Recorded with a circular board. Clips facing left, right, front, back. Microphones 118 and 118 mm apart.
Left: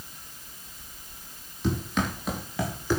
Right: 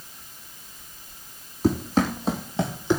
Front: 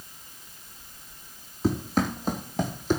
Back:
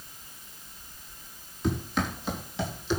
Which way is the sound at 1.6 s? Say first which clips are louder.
Right 6 dB, front 4 dB; 50° right.